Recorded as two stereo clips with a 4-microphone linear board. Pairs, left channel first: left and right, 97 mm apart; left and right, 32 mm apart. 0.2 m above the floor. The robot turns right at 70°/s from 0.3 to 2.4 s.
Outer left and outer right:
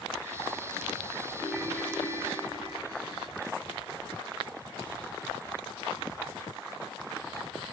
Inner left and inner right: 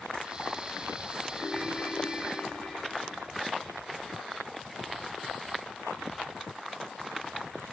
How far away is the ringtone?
About 5 m.